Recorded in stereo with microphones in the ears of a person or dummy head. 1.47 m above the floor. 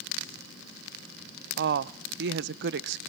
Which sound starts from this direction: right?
A woman speaking, at 1.6 s.